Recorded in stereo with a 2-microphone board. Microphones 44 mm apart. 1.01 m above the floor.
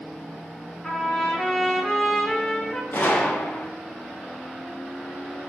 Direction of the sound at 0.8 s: 15° left (ahead or behind).